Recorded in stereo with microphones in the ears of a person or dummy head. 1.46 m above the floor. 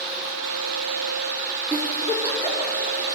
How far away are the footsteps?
I don't hear footsteps.